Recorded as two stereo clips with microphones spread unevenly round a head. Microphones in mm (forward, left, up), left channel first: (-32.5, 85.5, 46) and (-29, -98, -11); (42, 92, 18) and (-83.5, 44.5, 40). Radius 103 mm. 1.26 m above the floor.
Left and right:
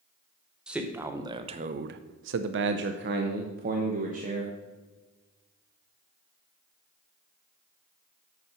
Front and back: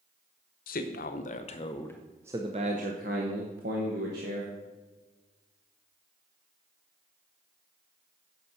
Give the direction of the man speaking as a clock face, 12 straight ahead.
12 o'clock.